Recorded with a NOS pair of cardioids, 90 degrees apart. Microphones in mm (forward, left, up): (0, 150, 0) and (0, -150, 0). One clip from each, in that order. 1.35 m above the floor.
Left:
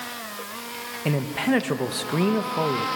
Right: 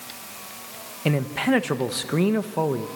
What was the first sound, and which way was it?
A man speaking, 15° right.